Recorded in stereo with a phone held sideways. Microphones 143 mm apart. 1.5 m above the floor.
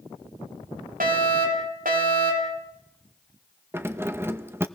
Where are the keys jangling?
15° right (ahead or behind), 0.9 m.